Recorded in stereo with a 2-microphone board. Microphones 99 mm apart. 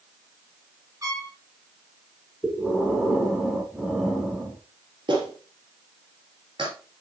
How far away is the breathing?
About 1.6 m.